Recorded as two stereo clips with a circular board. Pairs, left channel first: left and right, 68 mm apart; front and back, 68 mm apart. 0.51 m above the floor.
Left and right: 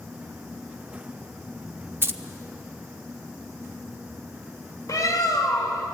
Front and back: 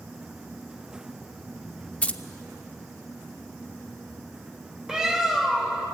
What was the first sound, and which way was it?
Keys jangling, 60° right.